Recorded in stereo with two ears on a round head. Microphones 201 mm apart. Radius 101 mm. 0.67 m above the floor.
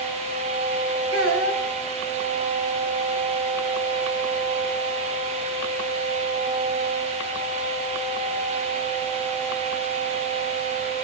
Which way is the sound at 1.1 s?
60° right (ahead or behind).